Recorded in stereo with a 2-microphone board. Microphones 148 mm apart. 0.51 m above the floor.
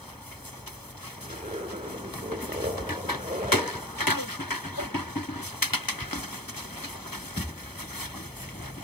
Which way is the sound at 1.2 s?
55° right (ahead or behind).